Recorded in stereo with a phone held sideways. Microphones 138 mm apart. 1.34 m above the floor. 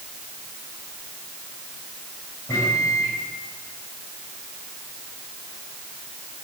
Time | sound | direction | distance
2.5 | a microwave | 25° left (ahead or behind) | 6 m